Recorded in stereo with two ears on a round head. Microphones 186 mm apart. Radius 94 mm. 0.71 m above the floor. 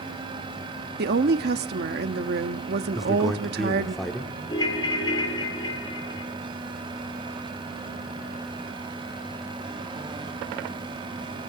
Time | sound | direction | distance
1.0 | a woman speaking | 55° right (ahead or behind) | 0.9 m
3.0 | a man speaking | centre (ahead or behind) | 1.4 m
4.5 | a ringtone | 20° left (ahead or behind) | 1.9 m